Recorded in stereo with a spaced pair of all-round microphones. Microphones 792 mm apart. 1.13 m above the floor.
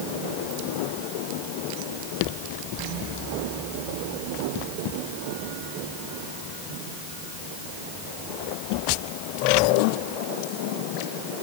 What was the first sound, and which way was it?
Only background noise.